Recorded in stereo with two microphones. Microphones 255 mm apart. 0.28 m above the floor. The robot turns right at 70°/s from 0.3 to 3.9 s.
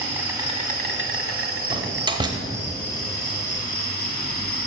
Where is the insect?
170° right, 0.9 m; by 4.7 s 80° left, 0.9 m.